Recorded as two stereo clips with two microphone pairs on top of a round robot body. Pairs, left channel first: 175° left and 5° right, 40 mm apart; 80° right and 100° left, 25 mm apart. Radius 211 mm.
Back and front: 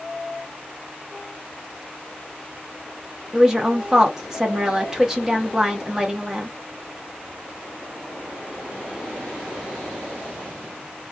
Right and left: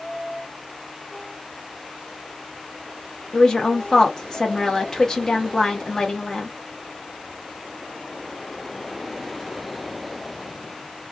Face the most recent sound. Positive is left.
turn(degrees=-65)